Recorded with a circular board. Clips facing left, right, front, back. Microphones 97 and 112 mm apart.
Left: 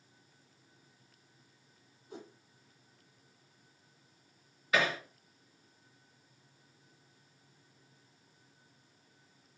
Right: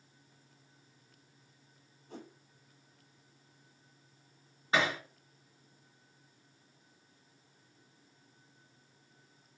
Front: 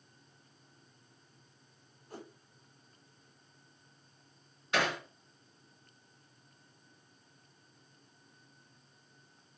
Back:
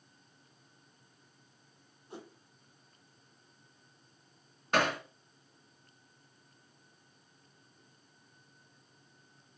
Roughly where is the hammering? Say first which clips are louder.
Even, back 3 dB; behind right.